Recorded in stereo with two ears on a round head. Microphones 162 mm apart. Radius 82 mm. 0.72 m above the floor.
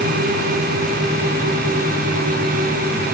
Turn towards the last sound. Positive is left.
No sound to turn to.